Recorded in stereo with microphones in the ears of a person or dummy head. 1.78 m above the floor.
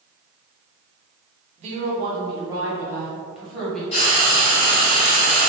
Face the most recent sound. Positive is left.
turn(degrees=35)  # may be behind; listen again after turning